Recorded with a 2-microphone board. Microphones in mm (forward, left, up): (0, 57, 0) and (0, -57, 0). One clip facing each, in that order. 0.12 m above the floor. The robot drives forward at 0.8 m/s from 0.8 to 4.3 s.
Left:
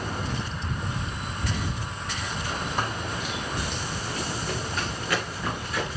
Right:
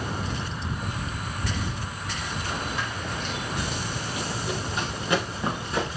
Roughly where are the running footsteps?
Left.